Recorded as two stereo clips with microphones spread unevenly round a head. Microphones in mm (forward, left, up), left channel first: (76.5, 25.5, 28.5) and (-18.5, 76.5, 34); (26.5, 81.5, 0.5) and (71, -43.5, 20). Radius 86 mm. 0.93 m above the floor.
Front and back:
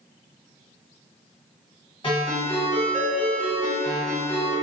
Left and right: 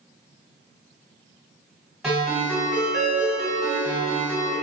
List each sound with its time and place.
2.0 s a ringtone: 15° left, 1.5 m